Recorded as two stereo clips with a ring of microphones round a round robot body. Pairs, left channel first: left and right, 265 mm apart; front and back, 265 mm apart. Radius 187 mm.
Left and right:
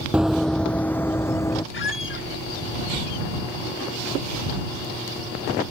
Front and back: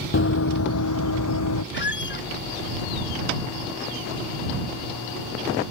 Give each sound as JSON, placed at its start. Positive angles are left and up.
{"t": 0.1, "sound": "running footsteps", "azimuth_deg": -5}
{"t": 1.7, "sound": "a squeak", "azimuth_deg": 45}